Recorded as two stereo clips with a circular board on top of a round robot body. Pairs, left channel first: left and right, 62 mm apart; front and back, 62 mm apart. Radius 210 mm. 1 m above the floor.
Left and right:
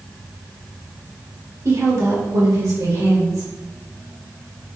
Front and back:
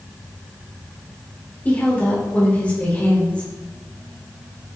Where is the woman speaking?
65° right, 3 m; by 3.5 s 70° right, 4 m.